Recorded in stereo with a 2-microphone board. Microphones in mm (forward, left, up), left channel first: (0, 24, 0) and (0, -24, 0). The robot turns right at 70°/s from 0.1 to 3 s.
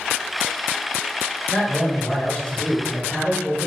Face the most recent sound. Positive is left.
turn(degrees=10)  # may be behind; listen again after turning